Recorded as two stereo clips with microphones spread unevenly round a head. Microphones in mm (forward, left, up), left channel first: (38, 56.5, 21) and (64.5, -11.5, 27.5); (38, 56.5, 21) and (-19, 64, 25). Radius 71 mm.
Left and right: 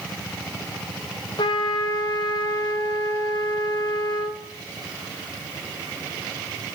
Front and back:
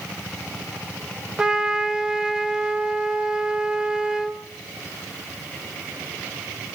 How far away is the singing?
No singing in this recording.